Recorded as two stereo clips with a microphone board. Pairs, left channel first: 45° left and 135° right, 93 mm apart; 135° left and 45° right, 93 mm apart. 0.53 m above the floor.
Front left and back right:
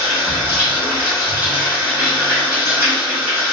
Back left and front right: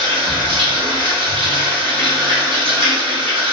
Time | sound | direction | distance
0.0 | running water | 65° right | 1.1 m